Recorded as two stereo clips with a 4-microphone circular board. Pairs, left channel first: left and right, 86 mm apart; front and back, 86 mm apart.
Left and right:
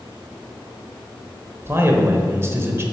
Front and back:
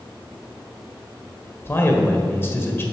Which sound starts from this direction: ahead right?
A man speaking, at 1.6 s.